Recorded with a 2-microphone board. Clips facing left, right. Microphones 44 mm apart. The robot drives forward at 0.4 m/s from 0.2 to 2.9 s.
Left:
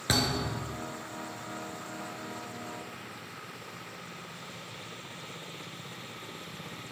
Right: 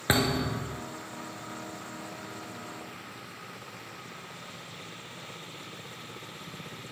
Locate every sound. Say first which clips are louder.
0.1 s a thud: right 3 dB; 25° right (ahead or behind), 1.1 m; by 0.8 s 35° right (ahead or behind), 0.9 m